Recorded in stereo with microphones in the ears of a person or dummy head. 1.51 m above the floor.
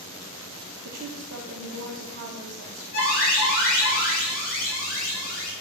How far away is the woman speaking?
About 0.7 m.